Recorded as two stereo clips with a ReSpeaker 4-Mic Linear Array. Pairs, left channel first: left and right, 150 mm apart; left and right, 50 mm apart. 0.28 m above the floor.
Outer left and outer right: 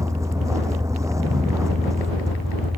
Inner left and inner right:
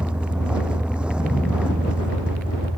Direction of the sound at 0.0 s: 20° right (ahead or behind).